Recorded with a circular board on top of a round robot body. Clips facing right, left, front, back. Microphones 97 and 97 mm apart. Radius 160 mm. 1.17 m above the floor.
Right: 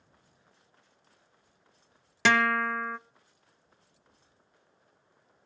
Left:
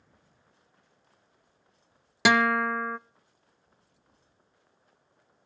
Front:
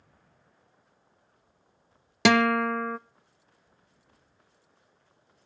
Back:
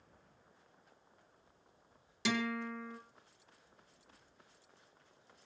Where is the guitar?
15° left, 0.5 m.